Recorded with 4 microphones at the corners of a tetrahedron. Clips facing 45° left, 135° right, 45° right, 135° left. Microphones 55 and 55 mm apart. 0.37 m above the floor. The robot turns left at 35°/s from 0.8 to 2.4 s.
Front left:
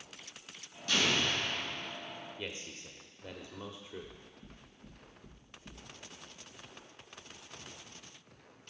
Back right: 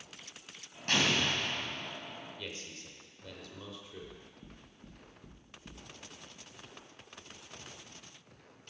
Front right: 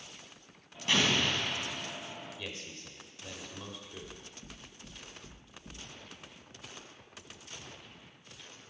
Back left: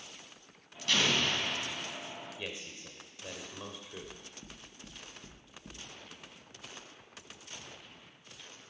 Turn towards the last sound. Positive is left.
turn(degrees=165)